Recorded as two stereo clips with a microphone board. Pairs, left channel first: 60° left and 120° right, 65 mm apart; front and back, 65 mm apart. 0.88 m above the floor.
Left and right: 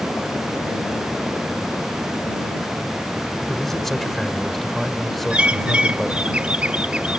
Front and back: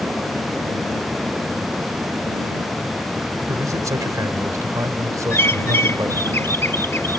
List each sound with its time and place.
3.5 s a man speaking: 145° left
5.3 s a bird: 50° right